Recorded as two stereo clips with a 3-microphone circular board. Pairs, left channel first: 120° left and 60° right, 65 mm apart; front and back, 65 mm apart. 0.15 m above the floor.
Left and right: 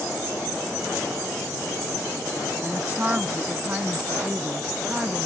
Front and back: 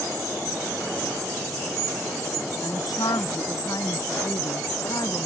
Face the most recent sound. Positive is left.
turn(degrees=10)